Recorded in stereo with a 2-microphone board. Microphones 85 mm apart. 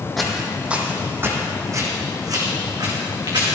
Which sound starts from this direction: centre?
Footsteps, at 0.2 s.